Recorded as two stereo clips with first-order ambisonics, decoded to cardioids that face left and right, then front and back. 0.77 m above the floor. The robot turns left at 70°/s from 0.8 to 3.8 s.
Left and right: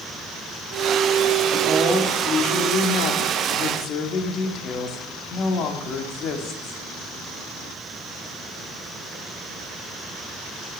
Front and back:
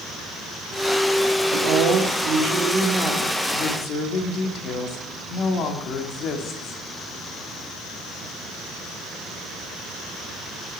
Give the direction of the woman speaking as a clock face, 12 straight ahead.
5 o'clock.